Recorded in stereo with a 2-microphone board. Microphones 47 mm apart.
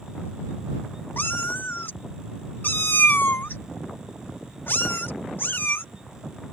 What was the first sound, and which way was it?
A cat meowing, 50° left (ahead or behind).